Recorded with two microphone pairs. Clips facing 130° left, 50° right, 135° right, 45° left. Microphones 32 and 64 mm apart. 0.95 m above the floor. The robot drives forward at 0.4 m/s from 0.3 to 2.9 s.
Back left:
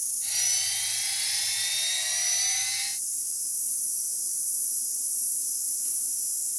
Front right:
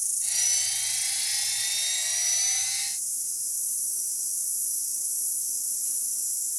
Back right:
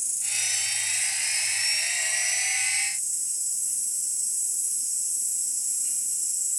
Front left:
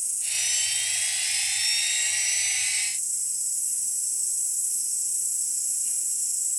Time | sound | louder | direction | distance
0.0 | an insect | front right 1 dB, back right 1 dB | 160° right | 0.9 m